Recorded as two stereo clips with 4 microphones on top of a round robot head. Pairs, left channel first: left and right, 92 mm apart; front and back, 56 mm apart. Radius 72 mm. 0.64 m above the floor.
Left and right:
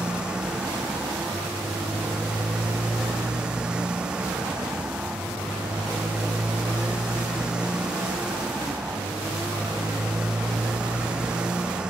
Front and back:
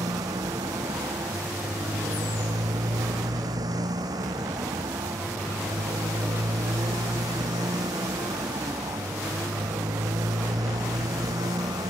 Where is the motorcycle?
170° right.